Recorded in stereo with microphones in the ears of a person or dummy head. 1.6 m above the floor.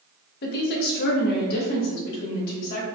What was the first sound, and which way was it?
A woman speaking, 60° left (ahead or behind).